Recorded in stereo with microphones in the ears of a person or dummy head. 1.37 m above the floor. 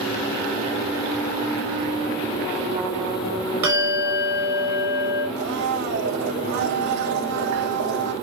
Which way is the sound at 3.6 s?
10° right (ahead or behind).